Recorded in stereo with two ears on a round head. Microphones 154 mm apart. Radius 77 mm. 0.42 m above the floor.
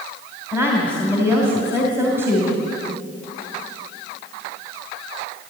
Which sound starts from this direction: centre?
A woman speaking, at 0.5 s.